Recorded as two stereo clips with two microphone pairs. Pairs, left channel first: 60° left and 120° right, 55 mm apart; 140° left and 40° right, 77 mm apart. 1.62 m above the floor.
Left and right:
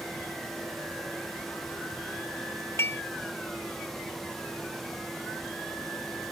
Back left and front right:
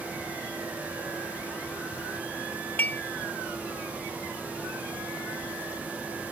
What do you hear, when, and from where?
2.8 s dishes clattering: 80° left